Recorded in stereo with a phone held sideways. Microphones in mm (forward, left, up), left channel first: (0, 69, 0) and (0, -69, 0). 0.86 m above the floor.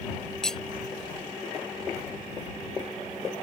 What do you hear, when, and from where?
0.4 s cutlery clinking: 5° left (ahead or behind)